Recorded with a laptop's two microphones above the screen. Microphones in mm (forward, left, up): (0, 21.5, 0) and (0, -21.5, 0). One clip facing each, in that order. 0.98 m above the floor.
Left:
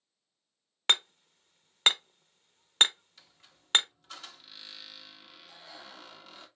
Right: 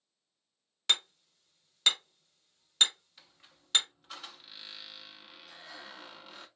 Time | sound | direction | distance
0.9 | hammering | 45° left (ahead or behind) | 0.6 m
3.2 | a squeak | 10° right (ahead or behind) | 0.7 m
5.5 | breathing | 70° right (ahead or behind) | 1.5 m